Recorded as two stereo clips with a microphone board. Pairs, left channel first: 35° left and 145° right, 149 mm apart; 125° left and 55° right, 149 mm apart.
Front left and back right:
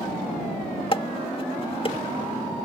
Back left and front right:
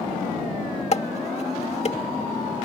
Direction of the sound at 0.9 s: 85° left.